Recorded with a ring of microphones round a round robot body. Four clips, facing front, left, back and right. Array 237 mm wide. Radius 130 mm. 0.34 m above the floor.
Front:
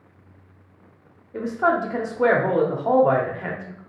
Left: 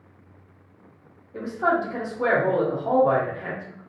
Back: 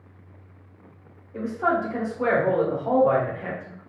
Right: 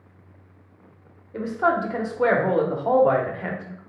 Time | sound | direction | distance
1.3 | a woman speaking | 50° right | 1.0 m